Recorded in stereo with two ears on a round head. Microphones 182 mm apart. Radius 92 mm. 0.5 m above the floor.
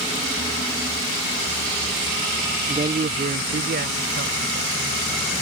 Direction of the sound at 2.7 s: 25° right (ahead or behind).